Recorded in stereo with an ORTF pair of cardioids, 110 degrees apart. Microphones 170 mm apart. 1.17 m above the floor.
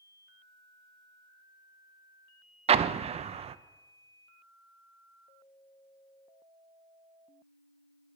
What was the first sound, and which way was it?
An explosion, 35° right.